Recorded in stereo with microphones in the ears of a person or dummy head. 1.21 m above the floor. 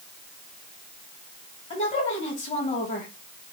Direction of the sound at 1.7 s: 35° left (ahead or behind).